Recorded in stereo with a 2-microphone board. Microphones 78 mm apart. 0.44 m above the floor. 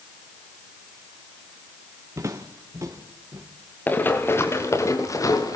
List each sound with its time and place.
2.2 s footsteps: 40° right (ahead or behind), 2.5 m; by 3.5 s 45° right (ahead or behind), 3.5 m
3.9 s running footsteps: 20° left (ahead or behind), 3.5 m; by 5.6 s 50° left (ahead or behind), 5 m